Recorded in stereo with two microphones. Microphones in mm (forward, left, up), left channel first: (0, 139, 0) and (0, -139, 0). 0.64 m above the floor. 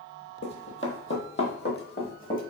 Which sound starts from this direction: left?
Running footsteps, at 0.4 s.